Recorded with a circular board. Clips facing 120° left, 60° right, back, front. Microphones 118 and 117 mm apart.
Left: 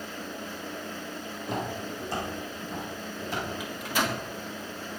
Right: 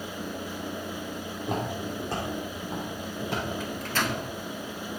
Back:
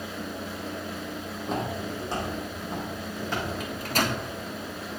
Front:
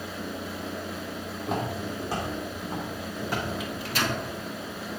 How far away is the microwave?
About 1.0 m.